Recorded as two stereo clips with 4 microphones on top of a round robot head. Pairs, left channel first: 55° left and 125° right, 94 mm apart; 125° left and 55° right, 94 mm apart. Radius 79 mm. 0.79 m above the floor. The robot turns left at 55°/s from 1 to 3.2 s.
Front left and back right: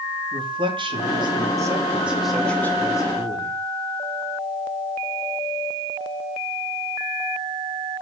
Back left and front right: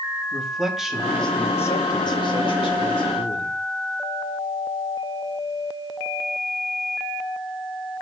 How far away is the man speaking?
About 2 m.